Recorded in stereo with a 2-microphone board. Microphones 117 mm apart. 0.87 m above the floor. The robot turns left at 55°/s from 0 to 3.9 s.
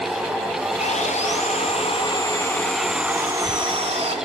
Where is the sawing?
110° left, 3.5 m; by 4.2 s 60° right, 3.5 m.